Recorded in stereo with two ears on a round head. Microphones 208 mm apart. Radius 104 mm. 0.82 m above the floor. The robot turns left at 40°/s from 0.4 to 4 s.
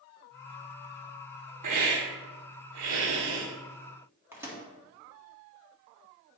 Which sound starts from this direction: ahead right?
A hiss, at 1.6 s.